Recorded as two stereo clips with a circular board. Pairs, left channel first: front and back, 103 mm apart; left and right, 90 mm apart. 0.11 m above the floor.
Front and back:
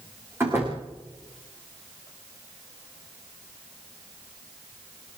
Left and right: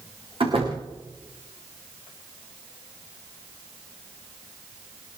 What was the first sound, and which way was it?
A door slam, 110° right.